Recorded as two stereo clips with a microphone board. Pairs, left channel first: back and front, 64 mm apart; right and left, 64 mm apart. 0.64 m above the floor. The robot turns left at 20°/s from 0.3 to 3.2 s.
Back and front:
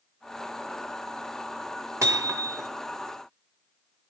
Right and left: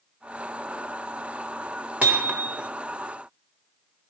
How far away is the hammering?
About 1.7 m.